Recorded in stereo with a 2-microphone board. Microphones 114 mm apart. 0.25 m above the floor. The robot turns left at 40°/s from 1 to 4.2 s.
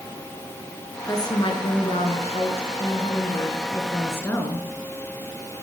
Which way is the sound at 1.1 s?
145° left.